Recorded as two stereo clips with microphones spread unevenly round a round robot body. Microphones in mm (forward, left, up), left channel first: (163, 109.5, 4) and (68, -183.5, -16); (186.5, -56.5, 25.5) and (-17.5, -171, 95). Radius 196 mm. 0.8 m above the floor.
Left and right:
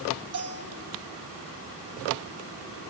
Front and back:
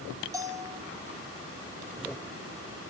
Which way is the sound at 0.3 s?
70° right.